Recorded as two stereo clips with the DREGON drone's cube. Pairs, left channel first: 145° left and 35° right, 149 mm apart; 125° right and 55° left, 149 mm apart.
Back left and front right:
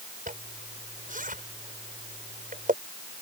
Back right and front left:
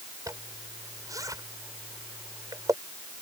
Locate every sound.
0.3 s a zipper: 10° right